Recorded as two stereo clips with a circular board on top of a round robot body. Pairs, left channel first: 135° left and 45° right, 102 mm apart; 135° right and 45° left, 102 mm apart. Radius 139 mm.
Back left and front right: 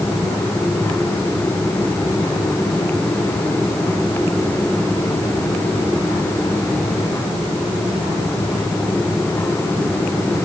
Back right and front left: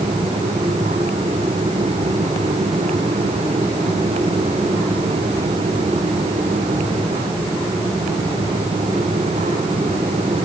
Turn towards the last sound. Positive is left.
No sound to turn to.